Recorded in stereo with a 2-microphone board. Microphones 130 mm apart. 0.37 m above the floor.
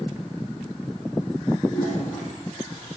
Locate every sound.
1.7 s a toilet flushing: 80° left, 9 m